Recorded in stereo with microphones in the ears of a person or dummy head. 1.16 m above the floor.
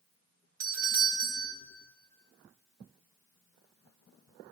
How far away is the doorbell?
About 0.7 m.